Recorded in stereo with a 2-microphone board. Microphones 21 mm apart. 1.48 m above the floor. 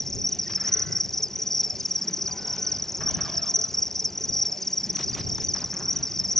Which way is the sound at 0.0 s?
15° left (ahead or behind).